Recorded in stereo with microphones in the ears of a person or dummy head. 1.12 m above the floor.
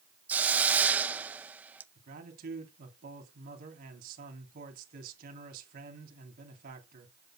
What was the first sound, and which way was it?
A hiss, 15° right (ahead or behind).